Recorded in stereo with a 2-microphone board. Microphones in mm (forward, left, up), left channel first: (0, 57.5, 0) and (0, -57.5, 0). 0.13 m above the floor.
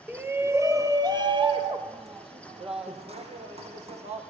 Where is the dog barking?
No dog barking in this recording.